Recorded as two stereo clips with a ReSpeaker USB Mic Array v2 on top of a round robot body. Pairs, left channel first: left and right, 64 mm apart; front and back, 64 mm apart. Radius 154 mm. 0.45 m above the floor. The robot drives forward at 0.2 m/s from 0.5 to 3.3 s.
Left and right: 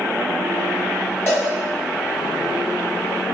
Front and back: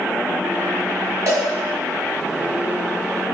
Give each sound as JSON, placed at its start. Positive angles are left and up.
{"t": 1.3, "sound": "a cowbell", "azimuth_deg": 145, "distance_m": 1.1}